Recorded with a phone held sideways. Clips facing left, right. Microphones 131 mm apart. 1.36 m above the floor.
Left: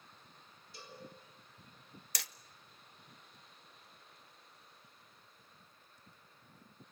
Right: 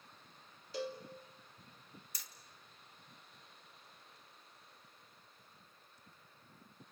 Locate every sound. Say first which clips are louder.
0.7 s a cowbell: right 12 dB; 85° right, 3 m
2.1 s hammering: left 9 dB; 65° left (ahead or behind), 0.6 m